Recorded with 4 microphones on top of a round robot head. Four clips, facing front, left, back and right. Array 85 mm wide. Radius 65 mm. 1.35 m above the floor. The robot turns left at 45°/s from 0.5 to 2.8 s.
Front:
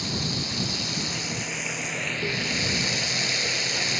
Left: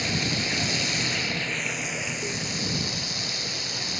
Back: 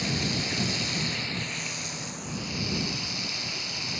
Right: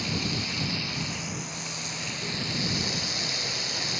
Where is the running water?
105° left; by 4.0 s straight ahead.